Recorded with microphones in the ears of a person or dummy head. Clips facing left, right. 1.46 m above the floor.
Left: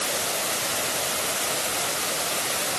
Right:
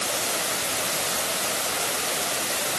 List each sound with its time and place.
Only background noise.